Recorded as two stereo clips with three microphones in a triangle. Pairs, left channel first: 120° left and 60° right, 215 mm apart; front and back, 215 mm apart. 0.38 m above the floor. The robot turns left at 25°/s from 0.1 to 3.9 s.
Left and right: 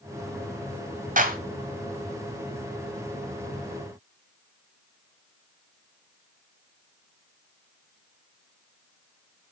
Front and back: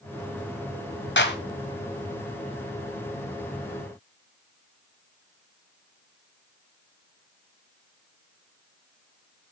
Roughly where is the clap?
Ahead.